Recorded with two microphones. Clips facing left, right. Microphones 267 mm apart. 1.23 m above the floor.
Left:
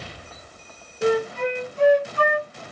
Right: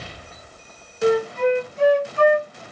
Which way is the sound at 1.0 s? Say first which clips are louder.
Right 3 dB; 75° left (ahead or behind).